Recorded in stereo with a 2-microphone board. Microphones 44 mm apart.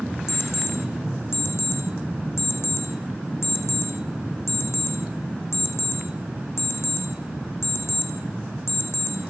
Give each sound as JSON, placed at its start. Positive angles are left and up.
{"t": 0.3, "sound": "an alarm clock", "side_deg": 75, "distance_m": 4.5}